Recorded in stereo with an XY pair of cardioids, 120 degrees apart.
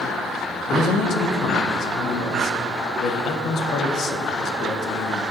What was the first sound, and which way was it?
A man speaking, 60° left.